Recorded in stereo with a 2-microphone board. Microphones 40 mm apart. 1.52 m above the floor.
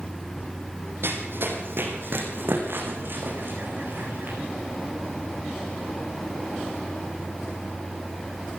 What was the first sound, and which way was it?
Running footsteps, 65° right (ahead or behind).